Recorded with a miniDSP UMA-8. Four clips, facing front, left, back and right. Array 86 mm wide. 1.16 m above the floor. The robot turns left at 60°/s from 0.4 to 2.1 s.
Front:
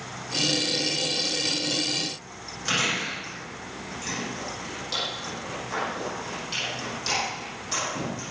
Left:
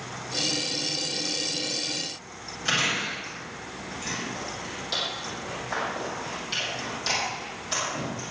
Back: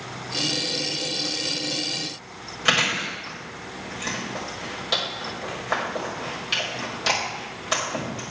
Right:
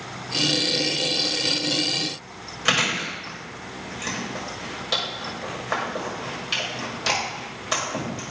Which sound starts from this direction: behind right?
Chewing, at 2.6 s.